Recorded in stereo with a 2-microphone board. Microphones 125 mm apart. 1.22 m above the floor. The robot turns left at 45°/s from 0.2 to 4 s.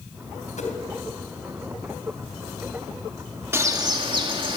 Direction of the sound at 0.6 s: 75° left (ahead or behind).